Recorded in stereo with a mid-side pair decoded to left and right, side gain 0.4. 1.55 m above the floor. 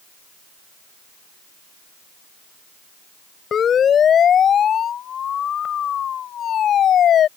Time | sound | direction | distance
3.5 | a siren | 55° left | ?